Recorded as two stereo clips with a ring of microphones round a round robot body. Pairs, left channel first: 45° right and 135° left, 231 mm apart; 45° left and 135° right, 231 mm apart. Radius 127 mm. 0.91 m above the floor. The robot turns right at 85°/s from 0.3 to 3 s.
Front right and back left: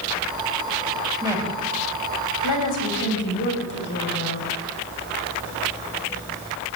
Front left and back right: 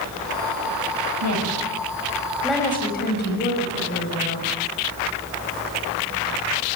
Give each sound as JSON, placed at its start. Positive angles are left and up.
{"t": 1.2, "sound": "a woman speaking", "azimuth_deg": -155, "distance_m": 6.5}